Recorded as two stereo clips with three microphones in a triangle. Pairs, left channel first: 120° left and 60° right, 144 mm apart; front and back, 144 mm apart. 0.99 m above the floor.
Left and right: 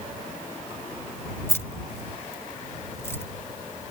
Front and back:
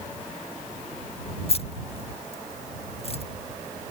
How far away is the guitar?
No guitar in this recording.